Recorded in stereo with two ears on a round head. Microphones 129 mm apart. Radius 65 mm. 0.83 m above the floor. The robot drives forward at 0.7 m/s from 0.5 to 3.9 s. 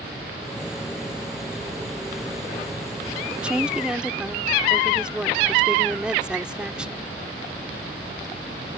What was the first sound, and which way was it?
A woman speaking, 10° right (ahead or behind).